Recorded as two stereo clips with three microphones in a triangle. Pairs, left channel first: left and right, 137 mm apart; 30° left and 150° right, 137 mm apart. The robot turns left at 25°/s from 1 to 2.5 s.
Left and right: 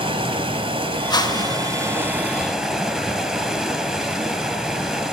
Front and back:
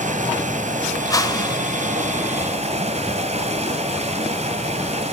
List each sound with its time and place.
0.0 s running water: 135° right, 1.0 m; by 5.1 s 175° right, 1.0 m
1.1 s a whoosh: 70° left, 0.5 m; by 1.6 s 55° left, 0.5 m